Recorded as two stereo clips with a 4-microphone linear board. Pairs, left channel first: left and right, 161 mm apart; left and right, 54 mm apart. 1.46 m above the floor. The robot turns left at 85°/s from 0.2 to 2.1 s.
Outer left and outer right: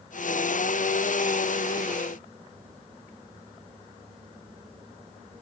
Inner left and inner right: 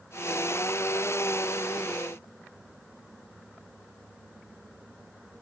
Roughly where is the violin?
No violin in this recording.